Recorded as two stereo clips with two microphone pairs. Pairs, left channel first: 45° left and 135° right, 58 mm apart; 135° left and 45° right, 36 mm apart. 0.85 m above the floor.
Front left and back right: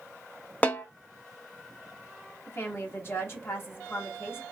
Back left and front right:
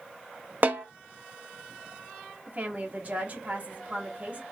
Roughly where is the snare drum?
Ahead.